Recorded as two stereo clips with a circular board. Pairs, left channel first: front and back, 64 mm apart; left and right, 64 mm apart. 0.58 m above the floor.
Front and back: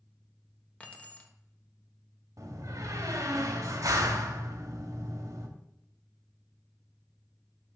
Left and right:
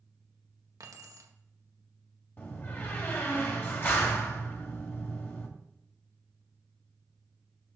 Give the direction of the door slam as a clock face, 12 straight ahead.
7 o'clock.